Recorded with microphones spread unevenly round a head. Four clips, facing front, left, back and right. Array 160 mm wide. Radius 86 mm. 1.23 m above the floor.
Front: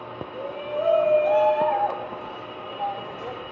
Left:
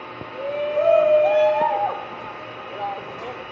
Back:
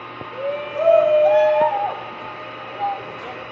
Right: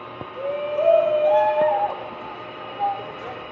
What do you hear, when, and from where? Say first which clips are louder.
0.3 s a shout: left 1 dB, back 5 dB; 160° left, 0.8 m; by 3.4 s 85° left, 2.5 m